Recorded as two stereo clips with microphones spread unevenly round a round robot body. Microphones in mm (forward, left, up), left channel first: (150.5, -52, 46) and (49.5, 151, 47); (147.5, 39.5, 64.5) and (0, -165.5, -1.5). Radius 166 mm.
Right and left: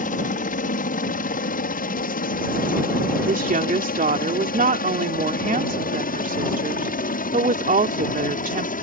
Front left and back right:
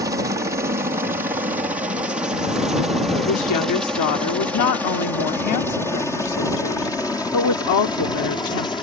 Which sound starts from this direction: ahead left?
A woman speaking, at 3.3 s.